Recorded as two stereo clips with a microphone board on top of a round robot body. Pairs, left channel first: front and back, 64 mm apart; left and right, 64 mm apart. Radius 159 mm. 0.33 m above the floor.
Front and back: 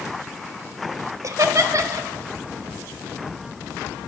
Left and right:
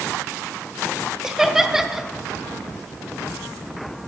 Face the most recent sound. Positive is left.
turn(degrees=-170)